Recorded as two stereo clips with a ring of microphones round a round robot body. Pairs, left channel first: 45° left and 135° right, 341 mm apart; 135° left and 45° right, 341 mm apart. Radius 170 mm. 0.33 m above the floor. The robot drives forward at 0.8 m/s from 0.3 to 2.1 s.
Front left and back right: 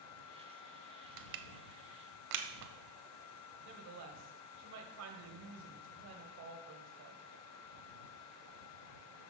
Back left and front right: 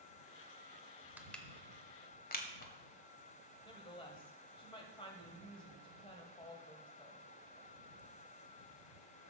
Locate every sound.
1.2 s crushing: 125° right, 0.7 m; by 2.7 s 165° right, 1.1 m
3.6 s a woman speaking: 155° right, 1.9 m